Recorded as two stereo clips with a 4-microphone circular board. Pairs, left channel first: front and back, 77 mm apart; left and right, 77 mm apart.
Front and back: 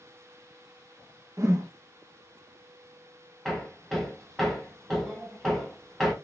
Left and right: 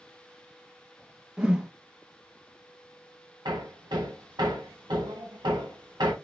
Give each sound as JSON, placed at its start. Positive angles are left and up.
{"t": 1.4, "sound": "a whoosh", "azimuth_deg": -165, "distance_m": 0.6}
{"t": 3.5, "sound": "hammering", "azimuth_deg": -90, "distance_m": 1.2}